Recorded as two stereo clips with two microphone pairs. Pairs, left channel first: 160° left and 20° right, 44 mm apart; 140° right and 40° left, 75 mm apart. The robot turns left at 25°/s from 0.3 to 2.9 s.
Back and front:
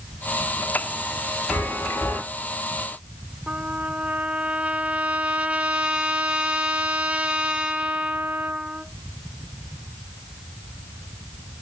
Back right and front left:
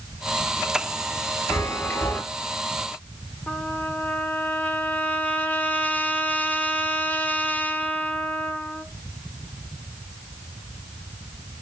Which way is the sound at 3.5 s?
80° right.